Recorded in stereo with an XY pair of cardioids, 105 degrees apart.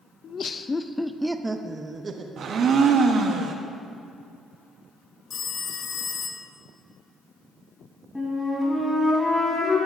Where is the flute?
15° left, 4 m.